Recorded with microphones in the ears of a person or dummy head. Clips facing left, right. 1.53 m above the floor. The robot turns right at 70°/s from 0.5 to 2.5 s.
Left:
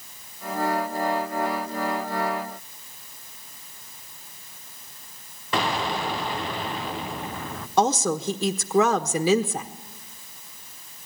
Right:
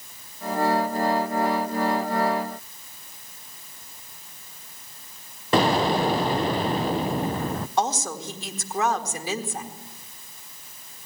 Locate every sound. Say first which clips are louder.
5.5 s an explosion: right 6 dB; 40° right (ahead or behind), 0.8 m
7.8 s a woman speaking: left 6 dB; 75° left (ahead or behind), 1.4 m